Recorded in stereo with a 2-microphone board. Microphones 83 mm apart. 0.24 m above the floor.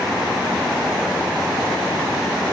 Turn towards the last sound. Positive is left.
No sound to turn to.